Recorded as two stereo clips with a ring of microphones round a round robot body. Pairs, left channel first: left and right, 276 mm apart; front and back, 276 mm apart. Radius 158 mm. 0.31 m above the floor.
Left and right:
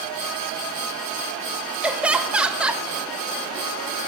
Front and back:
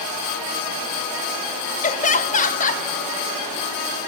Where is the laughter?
10° right, 1.0 m.